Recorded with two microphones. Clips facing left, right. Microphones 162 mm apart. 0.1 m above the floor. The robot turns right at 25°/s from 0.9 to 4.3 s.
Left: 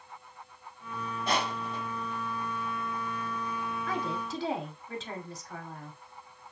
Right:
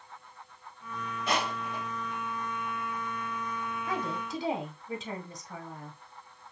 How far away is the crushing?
About 3 m.